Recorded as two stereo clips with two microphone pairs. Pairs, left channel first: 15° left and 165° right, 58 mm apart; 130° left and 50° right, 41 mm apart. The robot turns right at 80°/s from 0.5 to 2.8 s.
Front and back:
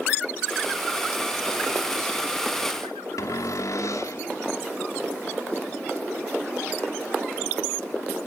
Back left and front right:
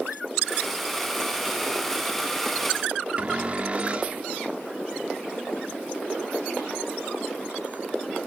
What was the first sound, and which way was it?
A cupboard door, 10° left.